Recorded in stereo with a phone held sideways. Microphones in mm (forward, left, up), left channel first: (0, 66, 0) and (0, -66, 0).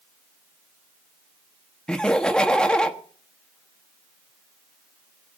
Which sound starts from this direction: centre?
Laughter, at 1.9 s.